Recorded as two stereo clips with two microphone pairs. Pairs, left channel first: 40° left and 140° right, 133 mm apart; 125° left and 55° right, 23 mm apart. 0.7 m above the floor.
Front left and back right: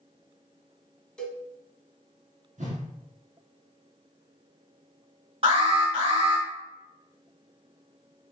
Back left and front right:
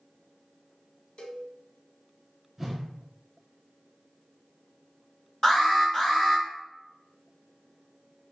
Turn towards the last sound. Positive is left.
turn(degrees=175)